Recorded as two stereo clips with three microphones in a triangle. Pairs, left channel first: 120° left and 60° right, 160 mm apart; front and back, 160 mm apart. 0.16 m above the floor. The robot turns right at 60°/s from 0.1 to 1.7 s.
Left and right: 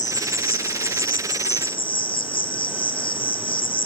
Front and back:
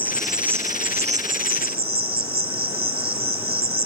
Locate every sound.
0.0 s an insect: 80° left, 1.2 m; by 3.9 s 175° left, 1.2 m